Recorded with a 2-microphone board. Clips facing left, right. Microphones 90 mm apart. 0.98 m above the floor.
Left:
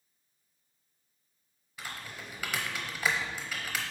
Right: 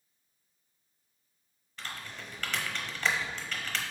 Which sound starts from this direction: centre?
Typing on a keyboard, at 1.8 s.